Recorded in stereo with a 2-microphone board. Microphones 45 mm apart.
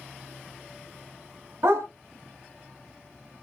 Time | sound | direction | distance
1.6 | a dog barking | 75° right (ahead or behind) | 1.9 m